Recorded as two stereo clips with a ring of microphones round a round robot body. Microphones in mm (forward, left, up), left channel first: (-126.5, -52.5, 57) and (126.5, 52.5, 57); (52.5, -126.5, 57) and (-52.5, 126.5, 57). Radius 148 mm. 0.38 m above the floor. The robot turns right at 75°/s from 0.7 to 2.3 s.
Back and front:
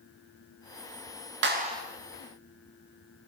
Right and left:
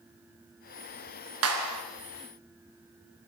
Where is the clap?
75° left, 4.5 m; by 1.8 s 105° left, 4.5 m.